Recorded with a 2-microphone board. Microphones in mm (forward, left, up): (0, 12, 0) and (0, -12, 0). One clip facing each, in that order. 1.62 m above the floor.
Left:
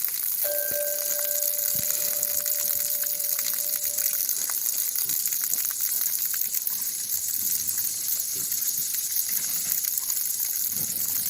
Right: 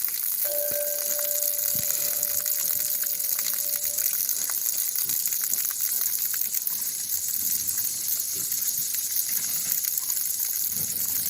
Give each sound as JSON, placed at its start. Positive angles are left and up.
{"t": 0.4, "sound": "a clink", "side_deg": 55, "distance_m": 7.0}